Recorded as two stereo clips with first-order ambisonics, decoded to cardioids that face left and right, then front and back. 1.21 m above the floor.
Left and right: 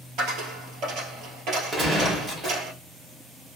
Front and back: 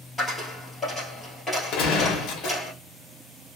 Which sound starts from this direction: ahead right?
A gunshot, at 1.7 s.